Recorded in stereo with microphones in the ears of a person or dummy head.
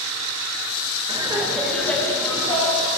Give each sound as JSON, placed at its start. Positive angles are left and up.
{"t": 1.1, "sound": "laughter", "side_deg": -25, "distance_m": 1.7}